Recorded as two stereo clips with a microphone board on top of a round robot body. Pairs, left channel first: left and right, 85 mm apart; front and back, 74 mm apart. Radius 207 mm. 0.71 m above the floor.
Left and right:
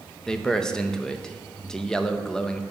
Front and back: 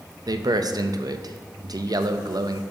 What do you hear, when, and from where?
0.3 s a man speaking: 170° left, 0.7 m